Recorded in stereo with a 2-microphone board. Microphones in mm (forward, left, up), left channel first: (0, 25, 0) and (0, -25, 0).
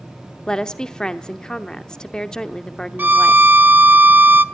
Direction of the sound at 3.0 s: 40° right (ahead or behind).